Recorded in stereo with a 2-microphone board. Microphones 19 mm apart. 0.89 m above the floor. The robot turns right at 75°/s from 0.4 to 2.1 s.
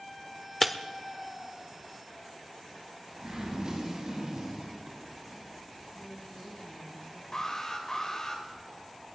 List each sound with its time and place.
0.6 s breaking glass: 10° left (ahead or behind), 0.7 m; by 0.7 s centre (ahead or behind), 0.7 m
3.2 s a zipper: 50° right (ahead or behind), 5.5 m
5.9 s a woman speaking: 80° left, 6.5 m
7.3 s an alarm: 35° left (ahead or behind), 3 m